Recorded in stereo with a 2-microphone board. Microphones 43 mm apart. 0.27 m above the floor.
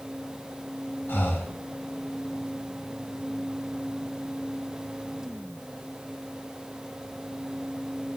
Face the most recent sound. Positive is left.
turn(degrees=55)  # may be behind; listen again after turning